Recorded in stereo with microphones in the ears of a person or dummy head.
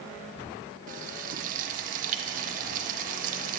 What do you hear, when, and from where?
0.9 s frying: 40° right (ahead or behind), 0.6 m